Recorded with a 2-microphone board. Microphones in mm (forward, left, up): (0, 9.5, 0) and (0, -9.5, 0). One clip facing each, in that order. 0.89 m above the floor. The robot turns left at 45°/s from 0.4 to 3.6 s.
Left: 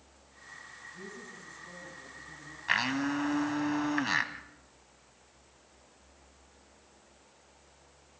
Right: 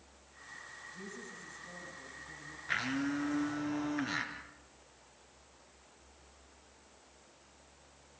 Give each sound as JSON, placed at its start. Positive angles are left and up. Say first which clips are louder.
{"t": 0.9, "sound": "a woman speaking", "louder": "left 1 dB", "azimuth_deg": -150, "distance_m": 6.0}
{"t": 2.7, "sound": "a blender", "louder": "left 5 dB", "azimuth_deg": 95, "distance_m": 2.0}